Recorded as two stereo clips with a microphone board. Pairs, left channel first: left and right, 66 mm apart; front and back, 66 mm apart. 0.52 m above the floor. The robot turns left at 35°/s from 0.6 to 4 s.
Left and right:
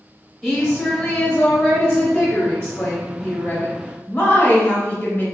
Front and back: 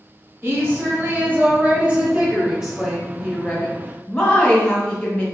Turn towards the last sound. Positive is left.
turn(degrees=80)